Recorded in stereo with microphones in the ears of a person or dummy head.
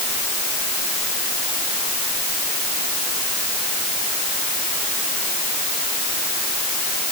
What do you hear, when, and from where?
Only background noise.